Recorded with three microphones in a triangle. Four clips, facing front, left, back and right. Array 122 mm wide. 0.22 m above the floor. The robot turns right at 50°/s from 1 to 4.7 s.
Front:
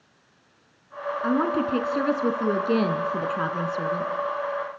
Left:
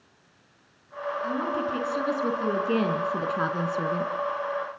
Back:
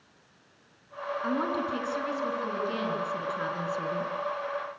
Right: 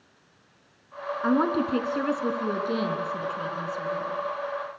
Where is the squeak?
I don't hear a squeak.